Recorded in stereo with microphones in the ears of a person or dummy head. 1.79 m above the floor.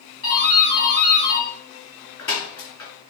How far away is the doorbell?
About 6 m.